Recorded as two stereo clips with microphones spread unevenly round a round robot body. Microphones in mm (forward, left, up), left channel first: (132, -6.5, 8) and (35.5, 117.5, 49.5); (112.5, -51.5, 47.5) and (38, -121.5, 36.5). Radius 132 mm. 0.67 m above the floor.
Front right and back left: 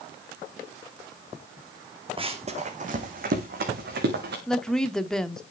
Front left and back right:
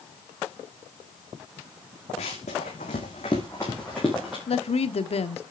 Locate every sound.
2.2 s running footsteps: 75° left, 2 m; by 4.4 s 135° left, 3 m
4.5 s a woman speaking: 25° left, 1.3 m